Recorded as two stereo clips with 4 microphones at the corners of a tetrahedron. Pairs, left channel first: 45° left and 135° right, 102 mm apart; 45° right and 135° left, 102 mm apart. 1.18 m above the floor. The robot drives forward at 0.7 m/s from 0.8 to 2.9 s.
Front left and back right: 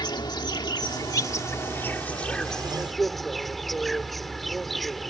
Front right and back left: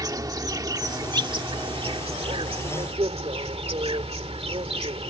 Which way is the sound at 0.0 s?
85° left.